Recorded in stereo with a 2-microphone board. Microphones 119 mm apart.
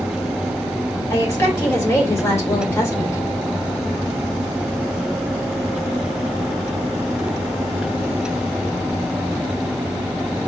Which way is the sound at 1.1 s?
20° left (ahead or behind).